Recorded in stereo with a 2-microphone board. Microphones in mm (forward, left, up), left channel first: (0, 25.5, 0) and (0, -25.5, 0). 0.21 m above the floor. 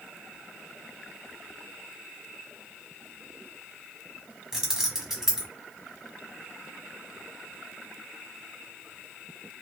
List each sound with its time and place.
4.5 s keys jangling: 10° right (ahead or behind), 1.1 m